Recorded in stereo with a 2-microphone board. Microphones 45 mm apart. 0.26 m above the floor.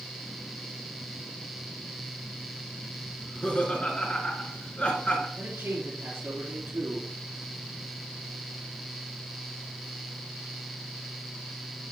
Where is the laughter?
30° left (ahead or behind), 3 m.